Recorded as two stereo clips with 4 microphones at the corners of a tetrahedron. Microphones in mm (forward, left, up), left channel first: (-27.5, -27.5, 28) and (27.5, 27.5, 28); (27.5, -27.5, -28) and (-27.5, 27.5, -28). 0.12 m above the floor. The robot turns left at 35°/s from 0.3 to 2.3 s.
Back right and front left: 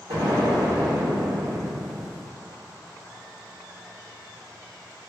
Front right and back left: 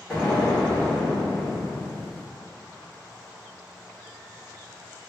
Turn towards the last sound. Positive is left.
turn(degrees=-25)